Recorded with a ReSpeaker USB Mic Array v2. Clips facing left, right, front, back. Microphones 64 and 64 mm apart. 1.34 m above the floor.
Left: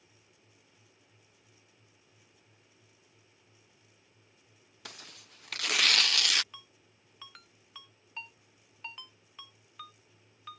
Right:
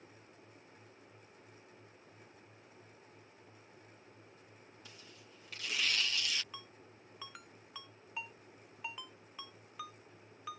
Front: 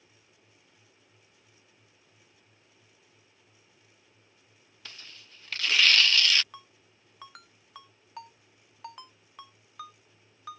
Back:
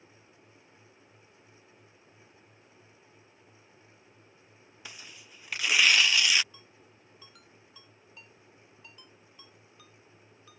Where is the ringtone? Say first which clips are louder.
Right 3 dB, front 5 dB; 5° right.